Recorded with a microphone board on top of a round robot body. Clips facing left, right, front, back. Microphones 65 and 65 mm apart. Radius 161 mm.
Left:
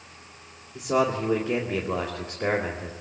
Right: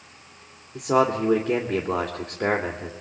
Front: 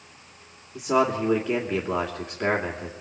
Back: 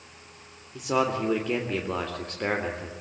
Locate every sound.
0.8 s a man speaking: 80° right, 2.5 m